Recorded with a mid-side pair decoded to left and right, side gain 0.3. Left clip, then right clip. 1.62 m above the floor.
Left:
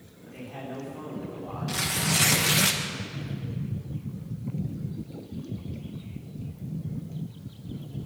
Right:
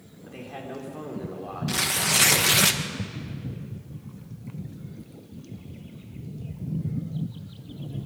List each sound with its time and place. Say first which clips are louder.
0.2 s a man speaking: right 1 dB; 60° right, 5.5 m
1.7 s tearing paper: right 3 dB; 50° right, 1.5 m